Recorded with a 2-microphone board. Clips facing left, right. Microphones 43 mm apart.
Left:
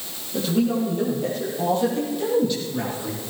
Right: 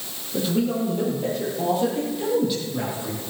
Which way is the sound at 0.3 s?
Centre (ahead or behind).